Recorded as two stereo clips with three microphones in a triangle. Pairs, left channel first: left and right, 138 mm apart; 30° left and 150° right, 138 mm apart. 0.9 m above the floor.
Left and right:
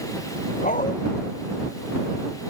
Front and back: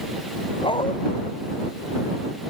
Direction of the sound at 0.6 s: 80° left.